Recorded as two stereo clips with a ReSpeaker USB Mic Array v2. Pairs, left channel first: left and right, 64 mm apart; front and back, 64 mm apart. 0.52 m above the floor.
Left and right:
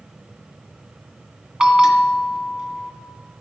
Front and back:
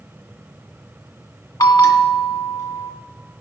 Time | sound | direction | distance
1.6 | a bell | 10° right | 1.9 m